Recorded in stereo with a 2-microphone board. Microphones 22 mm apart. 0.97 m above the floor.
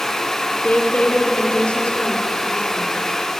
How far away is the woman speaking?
About 2.5 m.